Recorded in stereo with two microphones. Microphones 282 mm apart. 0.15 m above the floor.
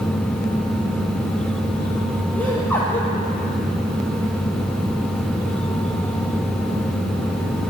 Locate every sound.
2.4 s laughter: 5° left (ahead or behind), 4 m